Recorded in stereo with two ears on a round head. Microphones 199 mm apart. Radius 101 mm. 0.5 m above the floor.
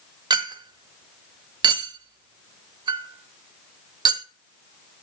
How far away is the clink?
About 0.9 m.